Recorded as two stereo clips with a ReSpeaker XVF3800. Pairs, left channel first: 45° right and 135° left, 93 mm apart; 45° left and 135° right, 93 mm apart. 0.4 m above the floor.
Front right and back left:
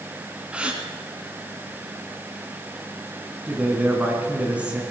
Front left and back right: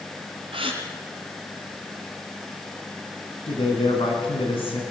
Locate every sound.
0.5 s a gasp: 145° right, 2 m
3.5 s a man speaking: 60° left, 3.5 m